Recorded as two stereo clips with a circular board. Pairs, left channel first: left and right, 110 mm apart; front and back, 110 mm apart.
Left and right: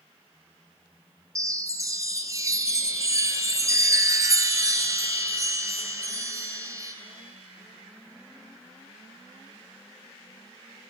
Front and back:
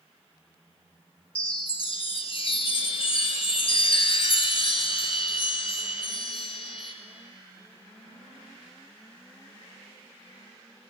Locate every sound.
1.4 s a chime: 30° right, 0.7 m